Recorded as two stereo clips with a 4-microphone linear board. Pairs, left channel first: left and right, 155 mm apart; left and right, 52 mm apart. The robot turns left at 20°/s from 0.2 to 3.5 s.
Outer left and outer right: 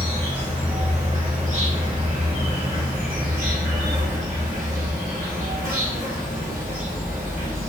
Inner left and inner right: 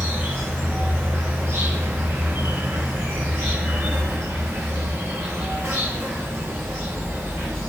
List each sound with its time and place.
0.0 s an insect: 35° right, 2 m; by 7.7 s 105° right, 2 m